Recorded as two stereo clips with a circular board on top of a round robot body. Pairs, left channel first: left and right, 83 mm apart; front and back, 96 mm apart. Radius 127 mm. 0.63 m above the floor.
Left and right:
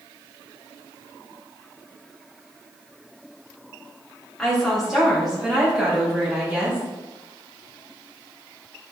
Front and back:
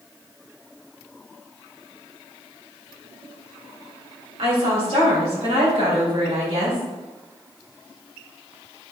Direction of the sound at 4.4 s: Straight behind.